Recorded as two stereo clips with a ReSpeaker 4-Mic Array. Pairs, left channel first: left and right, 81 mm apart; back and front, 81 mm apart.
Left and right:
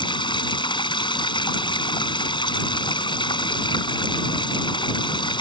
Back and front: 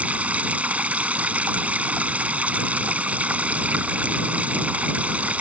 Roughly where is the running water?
Left.